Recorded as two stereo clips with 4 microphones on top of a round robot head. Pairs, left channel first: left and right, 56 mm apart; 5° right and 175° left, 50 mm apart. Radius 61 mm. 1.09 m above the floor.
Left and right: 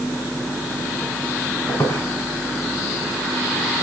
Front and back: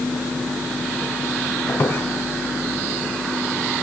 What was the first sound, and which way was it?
A squeak, 35° left.